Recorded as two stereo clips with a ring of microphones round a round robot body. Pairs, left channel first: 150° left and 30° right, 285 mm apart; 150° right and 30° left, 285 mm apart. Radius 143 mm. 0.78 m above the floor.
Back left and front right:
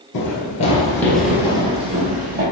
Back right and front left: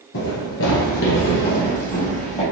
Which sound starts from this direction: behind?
Running footsteps, at 0.1 s.